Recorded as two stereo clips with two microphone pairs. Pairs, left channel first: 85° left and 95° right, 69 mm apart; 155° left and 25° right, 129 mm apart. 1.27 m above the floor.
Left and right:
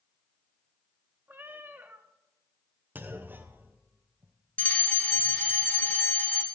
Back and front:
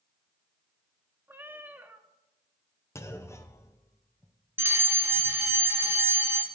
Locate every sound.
1.3 s a cat meowing: 85° right, 0.7 m
3.0 s a clunk: 150° right, 0.7 m
4.6 s a fire alarm: 35° left, 1.0 m